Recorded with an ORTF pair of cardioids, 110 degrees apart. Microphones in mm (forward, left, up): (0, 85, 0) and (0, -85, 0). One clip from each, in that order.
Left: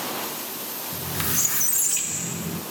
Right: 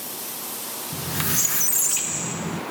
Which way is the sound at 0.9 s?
15° right.